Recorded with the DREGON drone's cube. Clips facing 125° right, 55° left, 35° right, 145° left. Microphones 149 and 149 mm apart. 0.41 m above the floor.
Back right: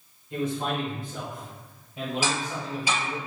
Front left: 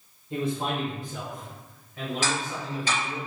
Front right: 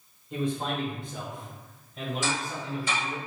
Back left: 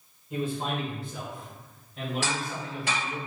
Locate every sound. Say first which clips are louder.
0.3 s a man speaking: even, front right 1 dB; 65° left, 1.6 m; by 3.2 s 120° right, 2.0 m
2.2 s ticking: back right 1 dB, front right 1 dB; 155° left, 1.7 m